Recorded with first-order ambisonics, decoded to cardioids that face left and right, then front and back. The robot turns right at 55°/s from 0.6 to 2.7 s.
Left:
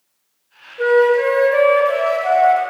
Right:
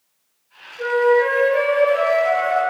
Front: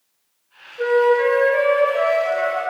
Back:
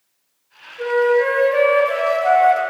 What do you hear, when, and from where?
0.8 s a flute: 70° left, 1.3 m; by 2.6 s 170° left, 1.3 m